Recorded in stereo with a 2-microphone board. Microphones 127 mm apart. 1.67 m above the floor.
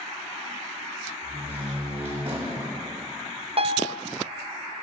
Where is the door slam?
50° right (ahead or behind), 9.5 m.